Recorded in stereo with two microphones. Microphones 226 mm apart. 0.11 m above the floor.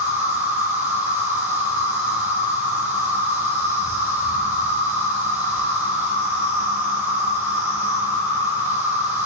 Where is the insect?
10° right (ahead or behind), 0.9 m.